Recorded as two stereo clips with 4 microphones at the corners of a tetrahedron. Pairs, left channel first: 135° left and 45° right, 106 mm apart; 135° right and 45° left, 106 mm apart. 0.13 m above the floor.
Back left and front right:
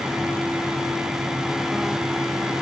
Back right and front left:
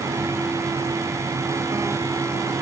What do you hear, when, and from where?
Only background noise.